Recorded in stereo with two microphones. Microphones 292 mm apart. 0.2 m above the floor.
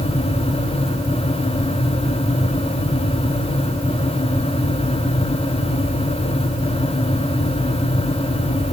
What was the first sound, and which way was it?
Only background noise.